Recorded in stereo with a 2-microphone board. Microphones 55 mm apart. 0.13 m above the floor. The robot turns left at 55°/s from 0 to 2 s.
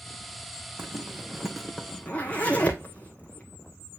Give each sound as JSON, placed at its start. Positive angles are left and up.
{"t": 0.8, "sound": "a zipper", "side_deg": -40, "distance_m": 1.3}